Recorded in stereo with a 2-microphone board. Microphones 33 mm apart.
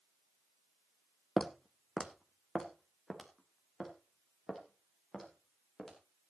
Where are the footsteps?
5° left (ahead or behind), 0.6 m.